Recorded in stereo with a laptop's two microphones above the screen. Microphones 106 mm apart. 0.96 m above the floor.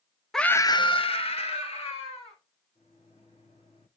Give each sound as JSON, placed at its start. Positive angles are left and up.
{"t": 0.3, "sound": "a scream", "side_deg": 5, "distance_m": 0.5}
{"t": 2.8, "sound": "a microwave", "side_deg": 65, "distance_m": 1.5}